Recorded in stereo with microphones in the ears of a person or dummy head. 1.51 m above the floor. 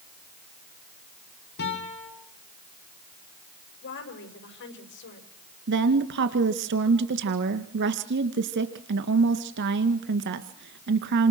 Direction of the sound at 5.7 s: 60° right (ahead or behind).